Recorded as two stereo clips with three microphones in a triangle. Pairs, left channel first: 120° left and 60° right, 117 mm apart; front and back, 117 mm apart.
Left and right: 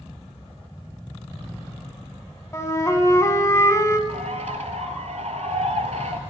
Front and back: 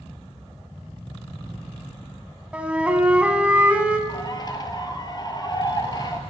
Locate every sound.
2.5 s a flute: 115° left, 0.6 m
4.1 s a bird: 50° right, 0.6 m